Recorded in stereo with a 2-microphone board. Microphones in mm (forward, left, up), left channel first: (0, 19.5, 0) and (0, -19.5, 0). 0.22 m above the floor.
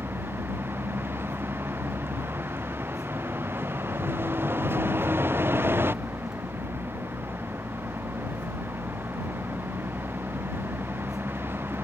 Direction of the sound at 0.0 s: 85° right.